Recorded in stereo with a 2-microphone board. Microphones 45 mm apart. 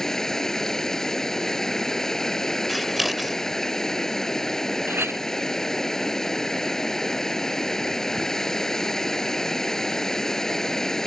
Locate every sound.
0.0 s running water: 10° left (ahead or behind)
2.7 s scissors: 5° right (ahead or behind)
4.9 s a clink: 60° right (ahead or behind)